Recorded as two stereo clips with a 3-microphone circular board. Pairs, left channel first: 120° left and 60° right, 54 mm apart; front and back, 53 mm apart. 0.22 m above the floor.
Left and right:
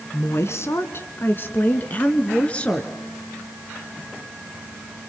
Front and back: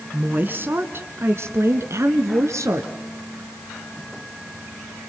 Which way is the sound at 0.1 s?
130° left.